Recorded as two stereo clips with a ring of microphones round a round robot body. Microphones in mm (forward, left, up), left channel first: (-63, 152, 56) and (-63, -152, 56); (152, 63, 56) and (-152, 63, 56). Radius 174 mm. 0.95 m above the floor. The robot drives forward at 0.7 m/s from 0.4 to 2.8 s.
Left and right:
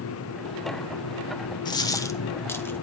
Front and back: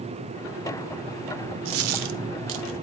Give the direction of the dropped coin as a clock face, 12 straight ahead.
7 o'clock.